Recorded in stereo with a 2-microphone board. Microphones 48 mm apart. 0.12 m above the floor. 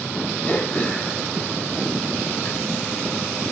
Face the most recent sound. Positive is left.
turn(degrees=30)  # may be behind; listen again after turning